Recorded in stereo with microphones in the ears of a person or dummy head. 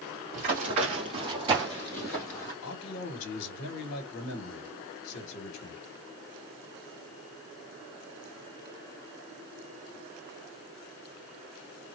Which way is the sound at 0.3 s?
50° right (ahead or behind).